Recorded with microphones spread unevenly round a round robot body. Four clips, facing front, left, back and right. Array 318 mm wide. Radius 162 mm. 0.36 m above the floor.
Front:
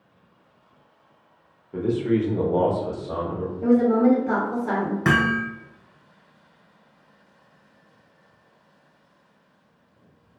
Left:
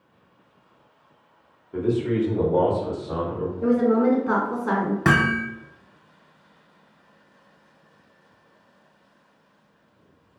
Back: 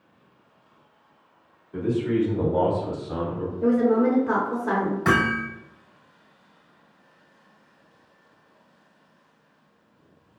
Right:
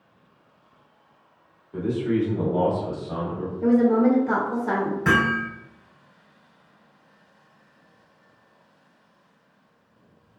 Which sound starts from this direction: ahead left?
A man speaking, at 1.7 s.